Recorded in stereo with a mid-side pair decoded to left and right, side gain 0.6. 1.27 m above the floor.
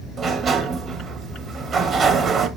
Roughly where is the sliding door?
Ahead right.